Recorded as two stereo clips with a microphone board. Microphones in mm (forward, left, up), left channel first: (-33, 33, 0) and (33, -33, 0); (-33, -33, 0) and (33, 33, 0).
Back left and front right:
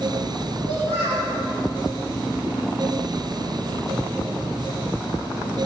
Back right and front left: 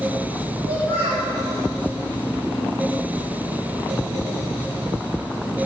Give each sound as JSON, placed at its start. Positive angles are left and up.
{"t": 0.7, "sound": "a child speaking", "azimuth_deg": -30, "distance_m": 6.5}